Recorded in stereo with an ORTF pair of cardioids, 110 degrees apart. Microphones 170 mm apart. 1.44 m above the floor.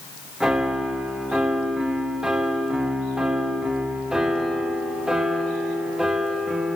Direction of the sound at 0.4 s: 5° right.